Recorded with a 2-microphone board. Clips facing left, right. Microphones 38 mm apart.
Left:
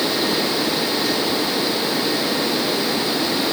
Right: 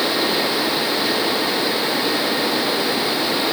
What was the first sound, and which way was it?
Only background noise.